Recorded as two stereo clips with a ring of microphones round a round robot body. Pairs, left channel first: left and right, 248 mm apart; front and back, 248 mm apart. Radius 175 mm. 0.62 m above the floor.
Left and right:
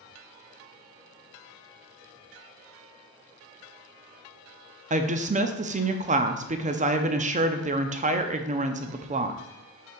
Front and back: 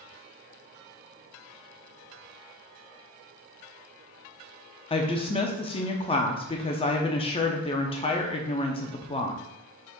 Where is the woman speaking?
55° right, 0.6 m.